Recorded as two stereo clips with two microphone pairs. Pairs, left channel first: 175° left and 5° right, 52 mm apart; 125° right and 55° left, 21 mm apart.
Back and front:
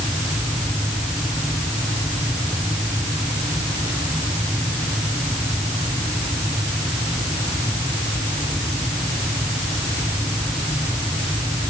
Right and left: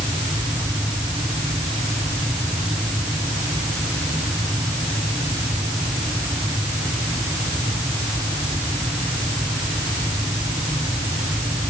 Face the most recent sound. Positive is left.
No sound to turn to.